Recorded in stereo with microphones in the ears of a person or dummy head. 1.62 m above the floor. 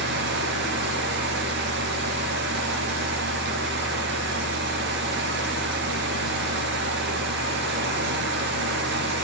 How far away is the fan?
About 1.2 m.